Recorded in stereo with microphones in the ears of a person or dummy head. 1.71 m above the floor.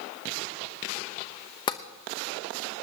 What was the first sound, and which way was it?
Tapping, 20° left (ahead or behind).